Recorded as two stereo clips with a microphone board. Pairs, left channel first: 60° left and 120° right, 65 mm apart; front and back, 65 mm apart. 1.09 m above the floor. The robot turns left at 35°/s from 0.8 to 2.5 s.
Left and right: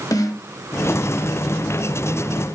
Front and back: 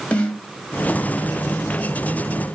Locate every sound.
0.1 s a snare drum: 65° left, 1.8 m